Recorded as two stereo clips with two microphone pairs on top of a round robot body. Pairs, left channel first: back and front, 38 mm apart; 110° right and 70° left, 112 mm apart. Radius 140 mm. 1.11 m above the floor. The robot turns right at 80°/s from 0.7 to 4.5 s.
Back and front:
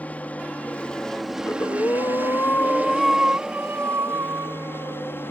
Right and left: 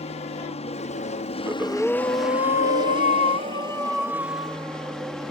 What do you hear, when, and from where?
0.0 s an aircraft: 130° right; by 5.3 s 160° left
1.4 s breathing: 135° left; by 5.3 s 20° left